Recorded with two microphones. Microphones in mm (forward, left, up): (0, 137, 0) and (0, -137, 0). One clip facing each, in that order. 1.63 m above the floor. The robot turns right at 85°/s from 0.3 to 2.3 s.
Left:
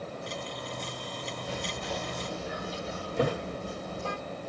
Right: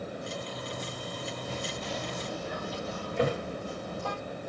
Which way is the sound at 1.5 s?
85° left.